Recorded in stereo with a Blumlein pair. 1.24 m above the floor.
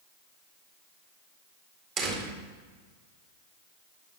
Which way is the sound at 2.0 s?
35° right.